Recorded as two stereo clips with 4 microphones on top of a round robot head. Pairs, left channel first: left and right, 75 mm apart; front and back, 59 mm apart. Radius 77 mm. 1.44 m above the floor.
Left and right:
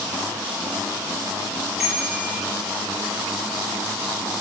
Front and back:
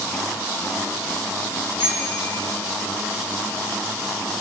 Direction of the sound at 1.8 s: 10° right.